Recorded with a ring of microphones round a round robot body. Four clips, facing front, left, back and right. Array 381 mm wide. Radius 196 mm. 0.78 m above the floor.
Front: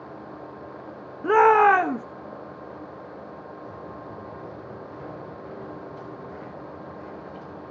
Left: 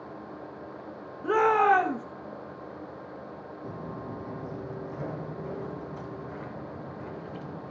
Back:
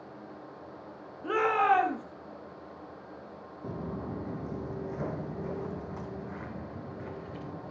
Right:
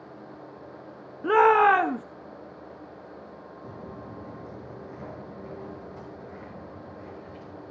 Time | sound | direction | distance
1.2 | a shout | 30° right | 1.1 m
3.6 | footsteps | 170° left | 1.2 m